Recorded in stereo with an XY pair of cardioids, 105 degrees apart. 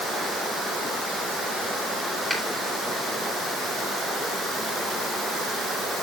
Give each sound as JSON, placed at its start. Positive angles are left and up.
{"t": 2.3, "sound": "a finger snap", "azimuth_deg": -10, "distance_m": 8.0}